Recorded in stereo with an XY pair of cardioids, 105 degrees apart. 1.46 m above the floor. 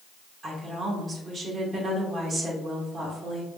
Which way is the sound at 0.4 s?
35° right.